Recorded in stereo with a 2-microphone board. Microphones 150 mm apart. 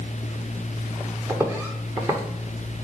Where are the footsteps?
20° right (ahead or behind), 1.9 m.